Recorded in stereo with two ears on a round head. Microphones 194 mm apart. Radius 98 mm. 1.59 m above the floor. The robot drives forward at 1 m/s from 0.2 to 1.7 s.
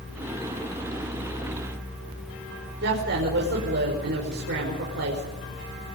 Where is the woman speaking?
60° right (ahead or behind), 5.5 m.